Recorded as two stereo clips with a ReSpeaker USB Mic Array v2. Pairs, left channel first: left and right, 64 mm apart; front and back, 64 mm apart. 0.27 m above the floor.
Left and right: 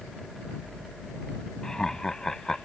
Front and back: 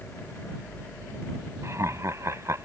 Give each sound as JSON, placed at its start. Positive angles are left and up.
{"t": 1.6, "sound": "laughter", "azimuth_deg": 170}